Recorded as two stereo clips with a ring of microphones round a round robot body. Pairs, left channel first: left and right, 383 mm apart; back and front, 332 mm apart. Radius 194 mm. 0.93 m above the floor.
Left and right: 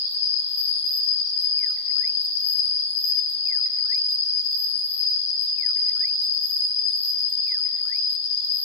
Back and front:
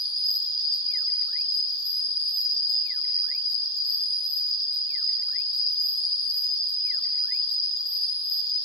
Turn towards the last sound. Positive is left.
turn(degrees=100)